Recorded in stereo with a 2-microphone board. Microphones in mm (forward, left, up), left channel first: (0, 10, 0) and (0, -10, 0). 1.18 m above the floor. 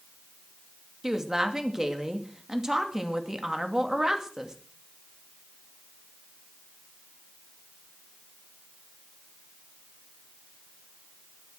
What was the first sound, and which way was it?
A woman speaking, 30° right (ahead or behind).